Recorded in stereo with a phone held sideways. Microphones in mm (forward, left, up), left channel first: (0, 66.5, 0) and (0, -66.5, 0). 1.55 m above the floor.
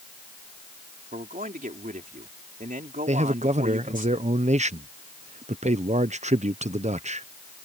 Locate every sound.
1.1 s a man speaking: 85° right
3.1 s a man speaking: 60° right (ahead or behind)